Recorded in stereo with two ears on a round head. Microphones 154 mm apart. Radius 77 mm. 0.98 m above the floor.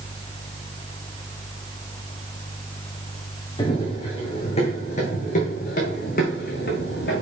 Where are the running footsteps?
30° left (ahead or behind), 3 m; by 7.2 s 65° left (ahead or behind), 3 m.